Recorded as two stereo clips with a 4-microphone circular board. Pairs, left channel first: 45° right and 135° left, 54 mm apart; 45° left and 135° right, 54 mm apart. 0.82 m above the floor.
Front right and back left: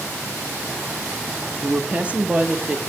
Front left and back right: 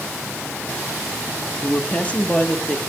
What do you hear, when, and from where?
1.6 s a woman speaking: 85° left, 0.8 m